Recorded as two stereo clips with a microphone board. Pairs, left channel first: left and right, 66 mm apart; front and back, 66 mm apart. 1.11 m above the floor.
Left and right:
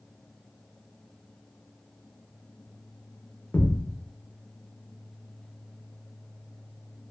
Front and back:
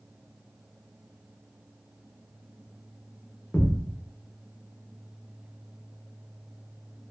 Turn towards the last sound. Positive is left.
turn(degrees=45)